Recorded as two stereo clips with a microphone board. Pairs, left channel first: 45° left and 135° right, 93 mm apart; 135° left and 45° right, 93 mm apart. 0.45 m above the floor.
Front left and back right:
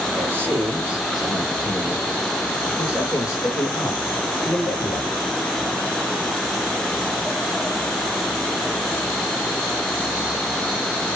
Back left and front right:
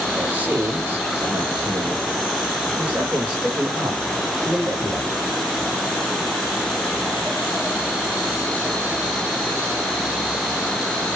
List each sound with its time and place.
0.1 s a man speaking: 105° right, 1.4 m; by 5.3 s 35° left, 2.5 m